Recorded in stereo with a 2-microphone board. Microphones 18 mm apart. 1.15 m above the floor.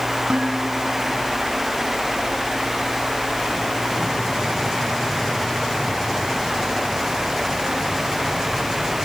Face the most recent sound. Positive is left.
turn(degrees=-60)  # may be behind; listen again after turning